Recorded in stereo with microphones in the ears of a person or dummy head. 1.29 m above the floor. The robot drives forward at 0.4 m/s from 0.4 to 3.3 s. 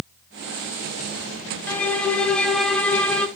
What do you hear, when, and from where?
1.7 s a violin: 10° left (ahead or behind), 0.7 m; by 3.3 s 5° left (ahead or behind), 1.2 m